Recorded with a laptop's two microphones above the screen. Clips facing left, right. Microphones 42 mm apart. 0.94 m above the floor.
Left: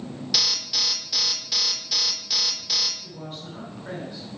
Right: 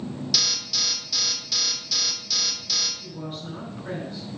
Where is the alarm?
15° left (ahead or behind), 3 m.